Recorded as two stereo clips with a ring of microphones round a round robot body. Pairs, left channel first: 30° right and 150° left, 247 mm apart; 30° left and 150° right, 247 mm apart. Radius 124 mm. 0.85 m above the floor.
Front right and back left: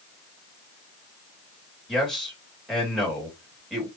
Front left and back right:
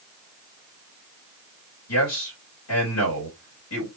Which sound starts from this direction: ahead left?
A man speaking, at 1.9 s.